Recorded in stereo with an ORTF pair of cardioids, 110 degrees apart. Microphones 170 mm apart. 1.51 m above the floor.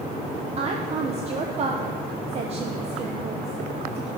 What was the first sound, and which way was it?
A woman speaking, 40° right.